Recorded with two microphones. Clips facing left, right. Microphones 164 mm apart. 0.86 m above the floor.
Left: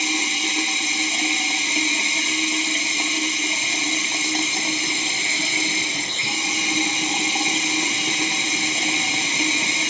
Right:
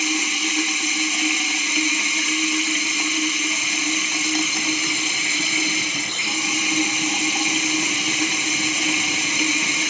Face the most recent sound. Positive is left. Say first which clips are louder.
# right 2 dB
turn(degrees=30)  # may be behind; listen again after turning